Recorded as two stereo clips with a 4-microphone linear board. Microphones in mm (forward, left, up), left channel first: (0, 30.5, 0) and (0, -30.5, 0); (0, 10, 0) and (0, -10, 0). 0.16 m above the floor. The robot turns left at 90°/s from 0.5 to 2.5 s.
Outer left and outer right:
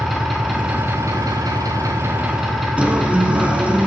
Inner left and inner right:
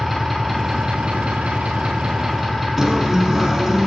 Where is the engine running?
Straight ahead, 5 m; by 3.9 s straight behind, 5 m.